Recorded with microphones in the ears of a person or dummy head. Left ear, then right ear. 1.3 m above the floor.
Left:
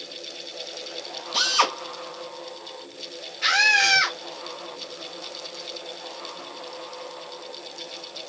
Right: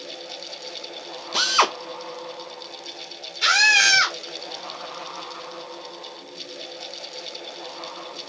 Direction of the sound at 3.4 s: 75° right (ahead or behind).